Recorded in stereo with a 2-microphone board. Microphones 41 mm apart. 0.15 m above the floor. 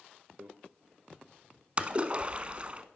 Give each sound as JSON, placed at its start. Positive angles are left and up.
{"t": 0.4, "sound": "a microwave", "side_deg": -60, "distance_m": 1.6}
{"t": 1.8, "sound": "a splash", "side_deg": -30, "distance_m": 0.8}